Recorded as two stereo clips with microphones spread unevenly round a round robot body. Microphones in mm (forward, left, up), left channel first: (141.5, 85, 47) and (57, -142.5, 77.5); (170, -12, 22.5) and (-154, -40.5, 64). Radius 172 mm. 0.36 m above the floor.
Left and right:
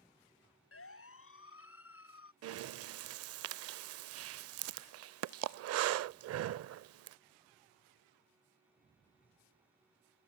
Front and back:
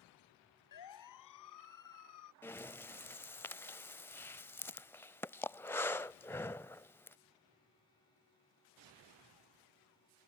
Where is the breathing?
75° right.